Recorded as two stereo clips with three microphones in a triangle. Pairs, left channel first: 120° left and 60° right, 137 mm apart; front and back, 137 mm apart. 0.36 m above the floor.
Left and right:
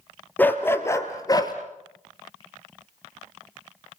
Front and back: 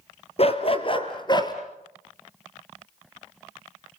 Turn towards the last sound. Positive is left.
turn(degrees=60)